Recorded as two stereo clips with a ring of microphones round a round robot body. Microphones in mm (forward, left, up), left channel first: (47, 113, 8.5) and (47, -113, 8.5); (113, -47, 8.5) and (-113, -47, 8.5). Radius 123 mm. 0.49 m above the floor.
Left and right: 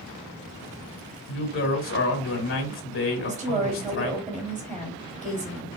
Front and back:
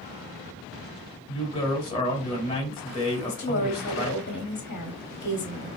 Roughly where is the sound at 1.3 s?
Ahead left.